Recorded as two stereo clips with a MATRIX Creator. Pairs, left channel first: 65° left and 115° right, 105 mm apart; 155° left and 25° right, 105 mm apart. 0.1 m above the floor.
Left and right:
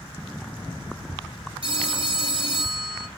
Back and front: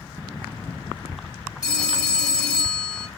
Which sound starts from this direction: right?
A phone ringing, at 1.6 s.